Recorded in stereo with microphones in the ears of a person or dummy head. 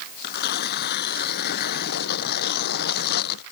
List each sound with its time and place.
0.2 s tearing paper: 65° left (ahead or behind)